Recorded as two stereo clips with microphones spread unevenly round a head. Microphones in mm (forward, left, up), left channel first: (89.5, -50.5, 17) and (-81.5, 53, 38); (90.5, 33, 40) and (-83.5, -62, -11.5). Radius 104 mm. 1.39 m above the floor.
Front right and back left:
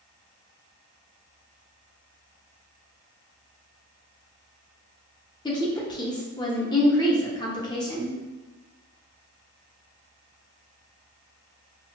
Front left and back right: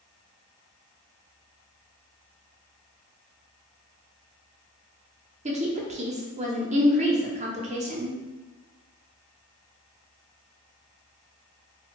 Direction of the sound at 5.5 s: 100° right.